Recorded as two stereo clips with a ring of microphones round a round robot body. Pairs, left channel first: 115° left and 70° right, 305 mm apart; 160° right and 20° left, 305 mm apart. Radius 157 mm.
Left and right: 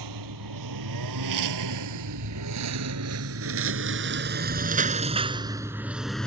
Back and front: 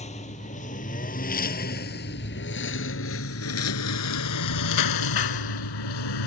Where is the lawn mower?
90° right; by 6.3 s 160° right.